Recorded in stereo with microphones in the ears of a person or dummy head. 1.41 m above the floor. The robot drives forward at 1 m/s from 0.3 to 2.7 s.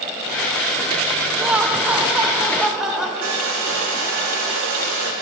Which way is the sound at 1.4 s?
10° right (ahead or behind).